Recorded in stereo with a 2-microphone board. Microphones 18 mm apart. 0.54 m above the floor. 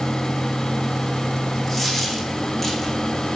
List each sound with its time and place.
1.7 s a dropped coin: 10° left (ahead or behind), 6 m